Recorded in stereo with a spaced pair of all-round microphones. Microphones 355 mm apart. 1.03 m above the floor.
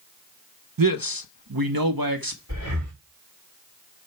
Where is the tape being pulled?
No tape being pulled in this recording.